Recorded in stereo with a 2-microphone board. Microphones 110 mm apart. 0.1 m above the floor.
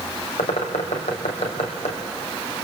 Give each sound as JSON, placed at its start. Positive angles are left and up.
{"t": 0.4, "sound": "a bird", "side_deg": 75, "distance_m": 3.5}